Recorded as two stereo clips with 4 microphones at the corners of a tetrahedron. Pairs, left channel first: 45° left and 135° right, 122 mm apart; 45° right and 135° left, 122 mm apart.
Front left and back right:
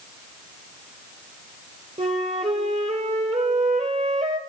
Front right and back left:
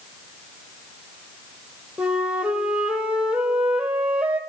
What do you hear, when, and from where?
2.0 s a flute: 145° right, 1.4 m